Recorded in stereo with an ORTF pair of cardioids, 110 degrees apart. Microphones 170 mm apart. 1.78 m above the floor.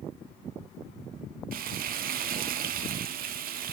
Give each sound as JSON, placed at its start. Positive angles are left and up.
{"t": 1.5, "sound": "frying", "azimuth_deg": -60, "distance_m": 0.9}